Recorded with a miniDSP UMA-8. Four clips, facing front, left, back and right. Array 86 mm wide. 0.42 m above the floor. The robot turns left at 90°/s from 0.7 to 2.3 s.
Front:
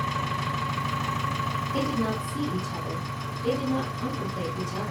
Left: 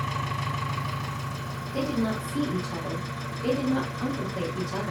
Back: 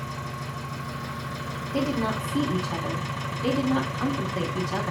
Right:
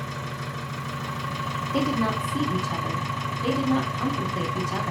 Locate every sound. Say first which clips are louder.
0.0 s an engine running: left 3 dB, front 6 dB; 30° left, 1.8 m; by 4.9 s 115° right, 1.8 m
1.7 s a woman speaking: right 2 dB, back 3 dB; 85° right, 3.5 m; by 4.9 s 135° right, 3.5 m